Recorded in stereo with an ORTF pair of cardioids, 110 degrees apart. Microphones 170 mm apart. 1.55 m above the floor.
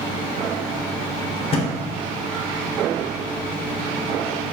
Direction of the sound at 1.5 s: 40° left.